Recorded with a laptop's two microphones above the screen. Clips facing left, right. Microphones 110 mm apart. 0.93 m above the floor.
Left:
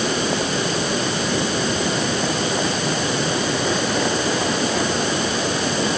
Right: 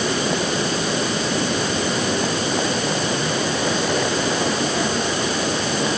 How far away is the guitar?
No guitar in this recording.